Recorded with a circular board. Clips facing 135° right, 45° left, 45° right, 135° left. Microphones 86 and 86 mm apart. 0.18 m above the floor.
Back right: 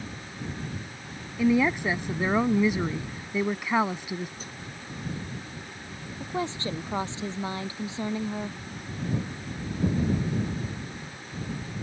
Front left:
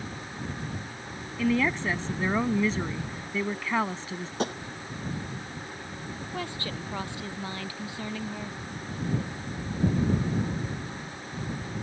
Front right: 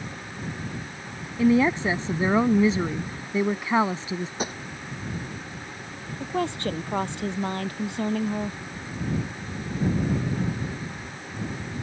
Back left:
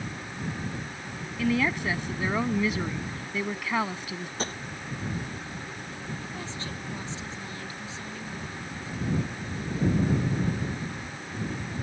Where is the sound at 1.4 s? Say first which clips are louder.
Back right 3 dB, front right 7 dB; 75° right.